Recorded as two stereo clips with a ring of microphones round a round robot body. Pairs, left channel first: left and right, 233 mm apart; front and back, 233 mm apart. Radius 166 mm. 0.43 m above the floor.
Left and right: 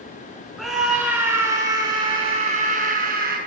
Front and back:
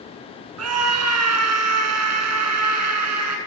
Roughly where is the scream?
Behind.